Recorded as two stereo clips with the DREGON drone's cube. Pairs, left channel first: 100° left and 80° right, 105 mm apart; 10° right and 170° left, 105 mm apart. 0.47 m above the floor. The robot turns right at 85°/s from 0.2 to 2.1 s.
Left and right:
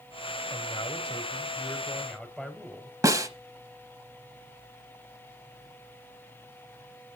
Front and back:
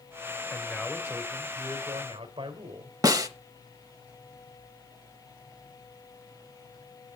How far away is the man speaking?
About 2.0 m.